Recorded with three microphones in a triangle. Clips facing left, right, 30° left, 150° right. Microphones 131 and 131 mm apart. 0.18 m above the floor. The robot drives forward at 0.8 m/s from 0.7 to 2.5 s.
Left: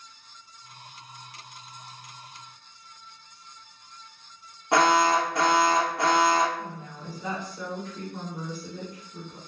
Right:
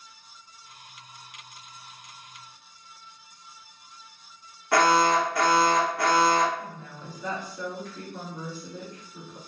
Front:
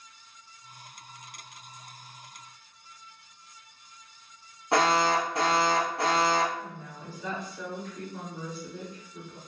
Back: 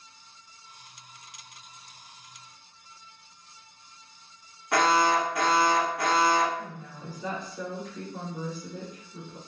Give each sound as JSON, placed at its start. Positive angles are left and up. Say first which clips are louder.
{"t": 4.7, "sound": "an alarm", "louder": "even, back 1 dB", "azimuth_deg": 55, "distance_m": 0.8}
{"t": 6.6, "sound": "a woman speaking", "louder": "left 2 dB, back 1 dB", "azimuth_deg": 155, "distance_m": 1.9}